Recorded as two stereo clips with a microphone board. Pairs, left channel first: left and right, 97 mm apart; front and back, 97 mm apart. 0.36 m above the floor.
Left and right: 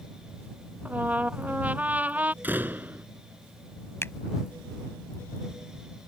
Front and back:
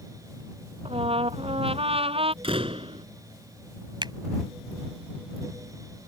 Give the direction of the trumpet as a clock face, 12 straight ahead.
5 o'clock.